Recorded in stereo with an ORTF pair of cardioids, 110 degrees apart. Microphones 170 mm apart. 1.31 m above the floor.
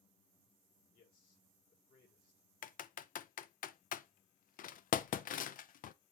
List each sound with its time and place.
0.9 s a man speaking: 60° left, 6 m
2.6 s typing on a keyboard: 55° left, 0.7 m